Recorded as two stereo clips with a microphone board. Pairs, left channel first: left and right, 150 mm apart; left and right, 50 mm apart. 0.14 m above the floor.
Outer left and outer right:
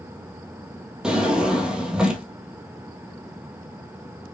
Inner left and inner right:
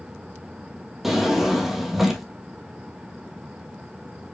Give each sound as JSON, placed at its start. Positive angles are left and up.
{"t": 1.0, "sound": "a drawer", "side_deg": -5, "distance_m": 1.5}